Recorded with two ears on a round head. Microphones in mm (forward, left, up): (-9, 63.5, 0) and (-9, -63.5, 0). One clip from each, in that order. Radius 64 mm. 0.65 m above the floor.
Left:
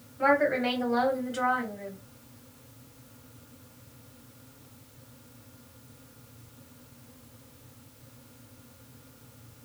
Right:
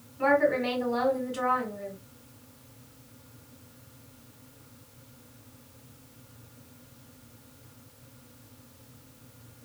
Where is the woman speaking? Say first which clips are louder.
Even; 10° left (ahead or behind), 1.9 m.